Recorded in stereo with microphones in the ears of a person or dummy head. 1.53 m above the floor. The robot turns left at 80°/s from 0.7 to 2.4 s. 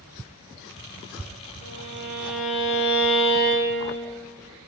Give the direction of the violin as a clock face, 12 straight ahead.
4 o'clock.